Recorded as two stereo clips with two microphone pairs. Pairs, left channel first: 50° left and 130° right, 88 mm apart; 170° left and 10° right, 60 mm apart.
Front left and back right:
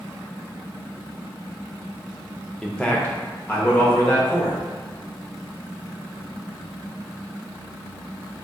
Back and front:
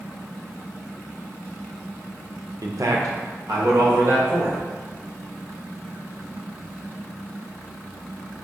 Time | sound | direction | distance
2.6 | a man speaking | 35° right | 0.6 m